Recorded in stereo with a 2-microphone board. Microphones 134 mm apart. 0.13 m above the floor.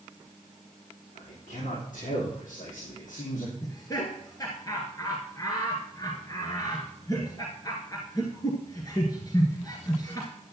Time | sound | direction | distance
1.1 | a man speaking | 75° left (ahead or behind) | 6 m
3.6 | laughter | 30° left (ahead or behind) | 1.8 m